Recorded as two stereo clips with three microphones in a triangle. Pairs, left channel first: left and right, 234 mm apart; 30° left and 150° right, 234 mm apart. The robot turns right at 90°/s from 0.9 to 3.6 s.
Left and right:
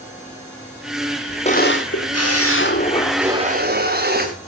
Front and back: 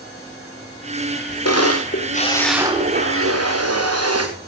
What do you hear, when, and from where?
1.4 s a camera shutter: 25° left, 3.5 m; by 4.3 s 140° right, 3.5 m